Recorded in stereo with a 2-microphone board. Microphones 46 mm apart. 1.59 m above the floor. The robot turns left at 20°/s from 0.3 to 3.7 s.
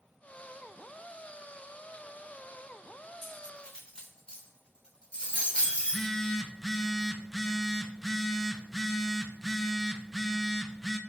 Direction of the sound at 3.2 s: 10° left (ahead or behind).